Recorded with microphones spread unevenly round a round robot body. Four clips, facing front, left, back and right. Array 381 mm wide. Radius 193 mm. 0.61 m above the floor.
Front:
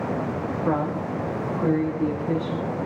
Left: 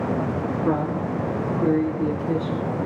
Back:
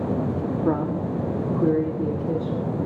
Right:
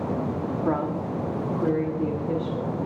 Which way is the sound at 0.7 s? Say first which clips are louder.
Left 2 dB, even; 170° left.